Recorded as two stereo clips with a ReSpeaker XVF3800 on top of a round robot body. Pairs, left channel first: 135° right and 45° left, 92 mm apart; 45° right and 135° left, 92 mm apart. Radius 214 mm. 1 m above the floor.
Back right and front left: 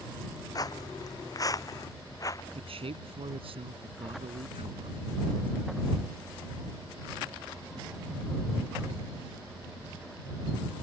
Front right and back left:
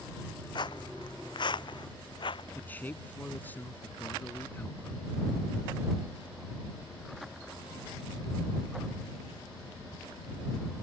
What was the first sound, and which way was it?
Footsteps, 85° right.